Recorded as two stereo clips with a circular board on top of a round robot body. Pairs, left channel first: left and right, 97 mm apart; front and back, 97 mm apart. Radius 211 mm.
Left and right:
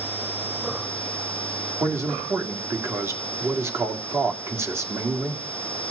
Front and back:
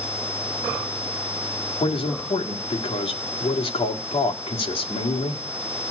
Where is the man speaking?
25° right, 2.0 m.